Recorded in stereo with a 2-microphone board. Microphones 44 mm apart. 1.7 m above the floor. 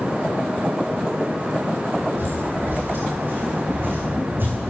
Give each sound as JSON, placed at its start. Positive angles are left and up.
{"t": 2.2, "sound": "footsteps", "side_deg": -55, "distance_m": 3.5}